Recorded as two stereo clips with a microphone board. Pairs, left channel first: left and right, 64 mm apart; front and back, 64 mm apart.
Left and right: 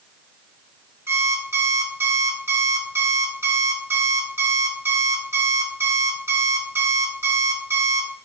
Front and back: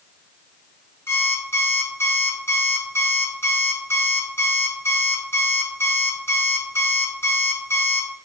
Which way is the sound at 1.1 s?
45° right.